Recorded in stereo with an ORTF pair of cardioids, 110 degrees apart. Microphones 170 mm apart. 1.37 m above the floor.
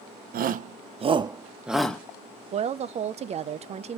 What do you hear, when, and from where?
0.3 s a shout: 60° right, 0.9 m; by 2.0 s 10° left, 0.8 m
2.5 s a woman speaking: 40° right, 0.6 m